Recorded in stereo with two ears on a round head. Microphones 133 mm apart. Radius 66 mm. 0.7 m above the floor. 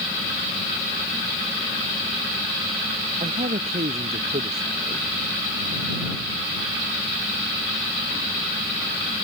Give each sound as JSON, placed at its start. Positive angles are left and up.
{"t": 3.2, "sound": "a man speaking", "side_deg": -45}